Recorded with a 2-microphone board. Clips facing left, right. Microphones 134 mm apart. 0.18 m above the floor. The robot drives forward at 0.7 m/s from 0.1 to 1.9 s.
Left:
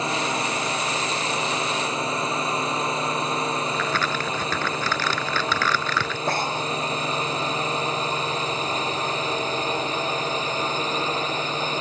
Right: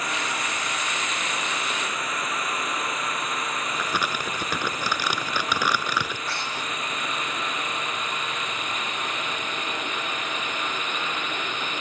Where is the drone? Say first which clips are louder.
Left 5 dB; 25° left (ahead or behind); by 11.8 s 30° left (ahead or behind).